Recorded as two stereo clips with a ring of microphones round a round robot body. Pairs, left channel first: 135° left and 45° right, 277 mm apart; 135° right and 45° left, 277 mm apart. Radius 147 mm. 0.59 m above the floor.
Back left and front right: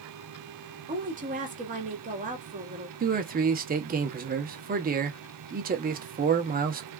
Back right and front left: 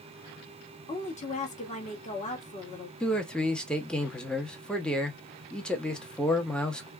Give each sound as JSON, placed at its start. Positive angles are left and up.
{"t": 0.9, "sound": "a woman speaking", "azimuth_deg": -85, "distance_m": 1.4}
{"t": 3.0, "sound": "a man speaking", "azimuth_deg": -50, "distance_m": 0.9}